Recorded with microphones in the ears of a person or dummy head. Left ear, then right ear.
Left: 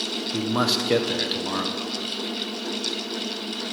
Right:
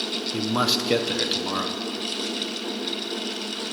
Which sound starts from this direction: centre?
A man speaking, at 0.3 s.